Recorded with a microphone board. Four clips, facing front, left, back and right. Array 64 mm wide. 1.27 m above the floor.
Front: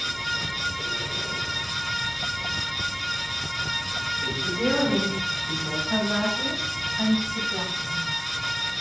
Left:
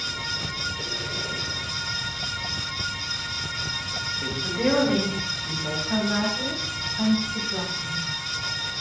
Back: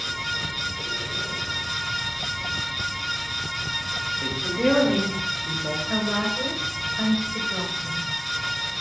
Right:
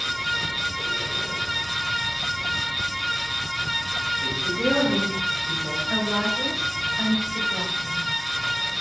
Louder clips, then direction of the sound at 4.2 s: Left 3 dB, back 3 dB; 160° left.